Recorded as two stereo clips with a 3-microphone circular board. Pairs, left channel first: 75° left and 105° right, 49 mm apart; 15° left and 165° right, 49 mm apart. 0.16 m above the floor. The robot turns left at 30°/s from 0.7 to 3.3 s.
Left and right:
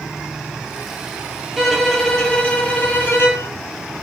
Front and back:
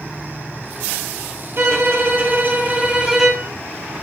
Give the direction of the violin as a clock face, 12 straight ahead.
6 o'clock.